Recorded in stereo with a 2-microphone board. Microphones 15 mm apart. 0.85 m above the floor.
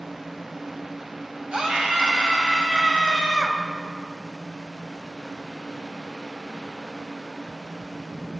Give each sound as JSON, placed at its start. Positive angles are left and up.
{"t": 1.5, "sound": "a scream", "side_deg": -85, "distance_m": 4.0}